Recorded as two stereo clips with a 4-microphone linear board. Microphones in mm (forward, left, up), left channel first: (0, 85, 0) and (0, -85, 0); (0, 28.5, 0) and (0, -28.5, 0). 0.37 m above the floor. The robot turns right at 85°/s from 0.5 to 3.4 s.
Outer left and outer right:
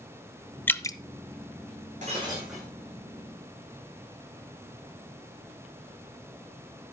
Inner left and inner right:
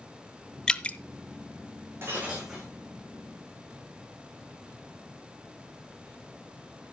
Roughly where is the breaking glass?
Ahead right.